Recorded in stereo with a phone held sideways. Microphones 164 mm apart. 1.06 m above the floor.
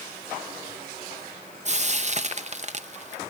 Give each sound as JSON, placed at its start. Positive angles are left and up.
{"t": 1.6, "sound": "frying", "side_deg": -45, "distance_m": 0.7}